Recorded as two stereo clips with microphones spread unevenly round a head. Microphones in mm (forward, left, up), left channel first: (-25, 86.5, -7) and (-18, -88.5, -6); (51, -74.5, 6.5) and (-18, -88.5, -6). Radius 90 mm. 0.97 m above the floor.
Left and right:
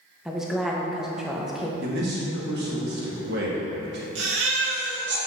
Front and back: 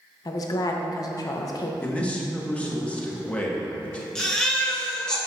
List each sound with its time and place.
0.2 s a woman speaking: straight ahead, 0.5 m
1.8 s a man speaking: 65° right, 1.3 m
4.2 s a baby crying: 65° right, 1.3 m